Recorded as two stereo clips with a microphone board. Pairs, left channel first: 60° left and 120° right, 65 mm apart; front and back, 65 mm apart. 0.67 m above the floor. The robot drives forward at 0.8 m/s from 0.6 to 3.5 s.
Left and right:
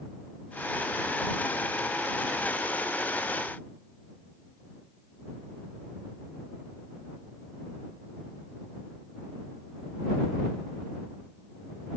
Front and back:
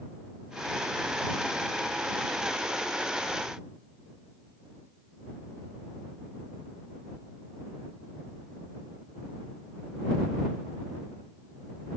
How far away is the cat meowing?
No cat meowing in this recording.